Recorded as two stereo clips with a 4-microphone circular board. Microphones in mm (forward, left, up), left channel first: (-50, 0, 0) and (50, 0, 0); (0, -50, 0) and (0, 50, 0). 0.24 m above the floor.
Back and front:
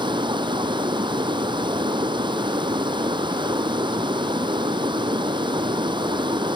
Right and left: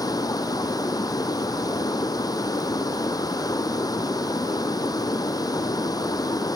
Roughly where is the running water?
Ahead right.